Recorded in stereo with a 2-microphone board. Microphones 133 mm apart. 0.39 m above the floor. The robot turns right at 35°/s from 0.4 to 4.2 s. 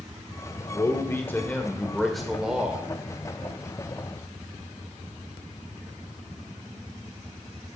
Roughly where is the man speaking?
Behind left.